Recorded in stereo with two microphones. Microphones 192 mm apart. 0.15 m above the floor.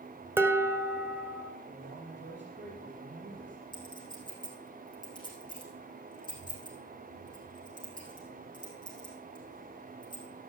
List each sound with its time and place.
0.4 s dishes clattering: 10° right (ahead or behind), 1.1 m
1.7 s a man speaking: 70° right (ahead or behind), 4 m
3.7 s a clink: 20° left (ahead or behind), 5.5 m